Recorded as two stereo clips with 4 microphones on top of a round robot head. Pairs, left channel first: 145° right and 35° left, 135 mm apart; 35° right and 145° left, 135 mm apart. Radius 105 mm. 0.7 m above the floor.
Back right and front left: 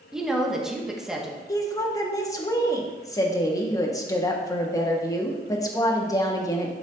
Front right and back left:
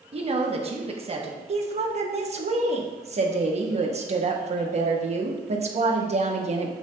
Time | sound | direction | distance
0.1 | a woman speaking | 125° left | 1.5 m
1.5 | a woman speaking | 160° left | 1.5 m